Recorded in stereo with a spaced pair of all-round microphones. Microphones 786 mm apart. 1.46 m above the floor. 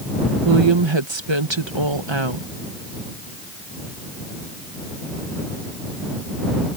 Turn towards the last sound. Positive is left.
turn(degrees=-35)  # may be behind; listen again after turning